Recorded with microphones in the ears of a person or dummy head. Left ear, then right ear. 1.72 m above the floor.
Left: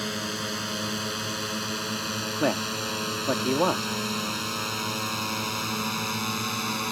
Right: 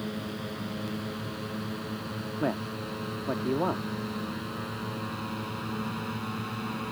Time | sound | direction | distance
0.0 | a drone | 70° left (ahead or behind) | ?
2.4 | a man speaking | 85° left | ?